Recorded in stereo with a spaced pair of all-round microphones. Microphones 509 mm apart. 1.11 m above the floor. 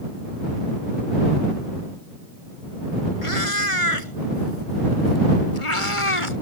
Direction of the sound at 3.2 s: 85° left.